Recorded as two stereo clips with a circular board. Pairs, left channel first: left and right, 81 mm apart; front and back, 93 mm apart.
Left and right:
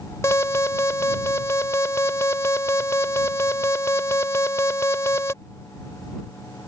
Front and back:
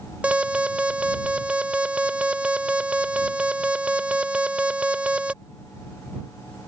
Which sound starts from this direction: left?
An alarm, at 0.2 s.